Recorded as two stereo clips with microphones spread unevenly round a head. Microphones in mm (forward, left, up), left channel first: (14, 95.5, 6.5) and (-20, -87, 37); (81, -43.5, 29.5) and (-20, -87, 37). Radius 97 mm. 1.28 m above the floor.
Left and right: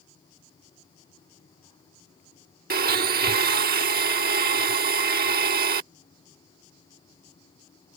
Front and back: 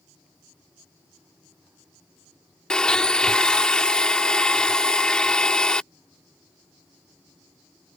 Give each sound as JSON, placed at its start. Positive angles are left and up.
{"t": 2.7, "sound": "a blender", "azimuth_deg": -60}